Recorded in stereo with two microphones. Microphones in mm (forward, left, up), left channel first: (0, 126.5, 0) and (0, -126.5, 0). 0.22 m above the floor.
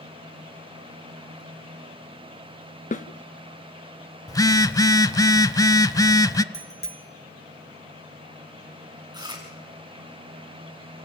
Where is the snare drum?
30° left (ahead or behind), 0.9 m.